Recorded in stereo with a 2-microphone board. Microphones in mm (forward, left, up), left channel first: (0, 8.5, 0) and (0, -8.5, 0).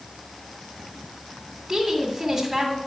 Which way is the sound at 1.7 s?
10° right (ahead or behind).